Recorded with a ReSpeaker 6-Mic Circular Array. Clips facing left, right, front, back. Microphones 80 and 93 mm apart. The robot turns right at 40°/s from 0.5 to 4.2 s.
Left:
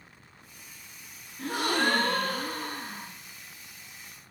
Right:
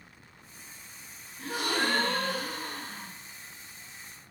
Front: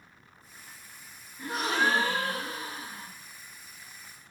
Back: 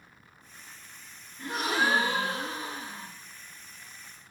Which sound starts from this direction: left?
A gasp, at 1.4 s.